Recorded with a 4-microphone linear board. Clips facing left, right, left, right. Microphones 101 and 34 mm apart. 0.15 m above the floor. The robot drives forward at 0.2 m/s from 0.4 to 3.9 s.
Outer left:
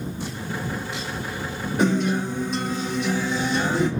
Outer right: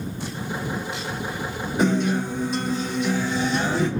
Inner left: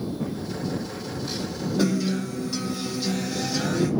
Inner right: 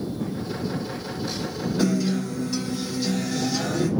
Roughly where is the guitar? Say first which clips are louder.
Even, inner right 1 dB; centre.